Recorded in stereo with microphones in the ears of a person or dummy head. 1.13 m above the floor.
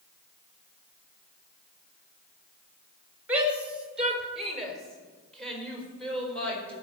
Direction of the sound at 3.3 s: 5° right (ahead or behind).